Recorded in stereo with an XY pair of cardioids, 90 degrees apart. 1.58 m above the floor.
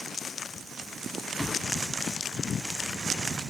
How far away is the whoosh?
About 1.1 m.